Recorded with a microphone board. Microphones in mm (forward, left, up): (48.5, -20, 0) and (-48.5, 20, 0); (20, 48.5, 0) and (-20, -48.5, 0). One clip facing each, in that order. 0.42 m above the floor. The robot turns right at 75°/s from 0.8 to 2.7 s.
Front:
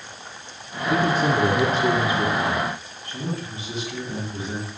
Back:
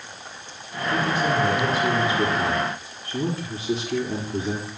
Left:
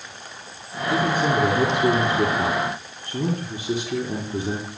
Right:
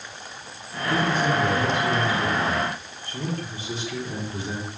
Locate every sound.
0.9 s a man speaking: 30° right, 9 m; by 4.7 s 105° left, 9 m